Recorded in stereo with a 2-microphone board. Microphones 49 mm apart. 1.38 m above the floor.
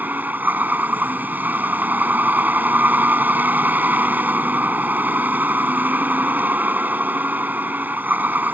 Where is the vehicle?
40° right (ahead or behind).